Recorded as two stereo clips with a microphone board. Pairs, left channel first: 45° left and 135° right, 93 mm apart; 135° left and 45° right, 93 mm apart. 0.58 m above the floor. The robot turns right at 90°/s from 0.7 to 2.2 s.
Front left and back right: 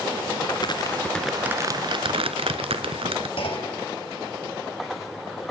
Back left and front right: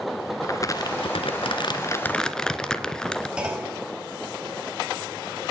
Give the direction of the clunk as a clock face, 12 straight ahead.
11 o'clock.